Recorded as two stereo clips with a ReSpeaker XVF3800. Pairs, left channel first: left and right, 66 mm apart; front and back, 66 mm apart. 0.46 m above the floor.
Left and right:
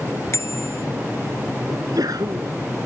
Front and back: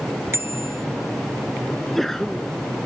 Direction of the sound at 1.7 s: 90° right.